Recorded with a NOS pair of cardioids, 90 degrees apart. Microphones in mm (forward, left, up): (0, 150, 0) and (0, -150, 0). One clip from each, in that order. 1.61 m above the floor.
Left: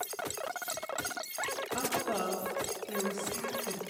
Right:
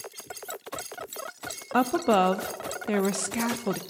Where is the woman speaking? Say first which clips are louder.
Right 13 dB; 65° right, 0.5 m.